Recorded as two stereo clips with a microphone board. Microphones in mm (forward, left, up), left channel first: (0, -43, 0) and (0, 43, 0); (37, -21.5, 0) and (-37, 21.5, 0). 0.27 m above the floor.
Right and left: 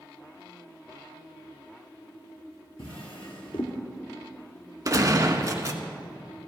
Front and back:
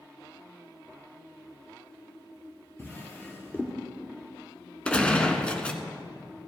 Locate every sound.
2.8 s a drawer: 95° right, 2 m
4.8 s a gunshot: 45° left, 1.0 m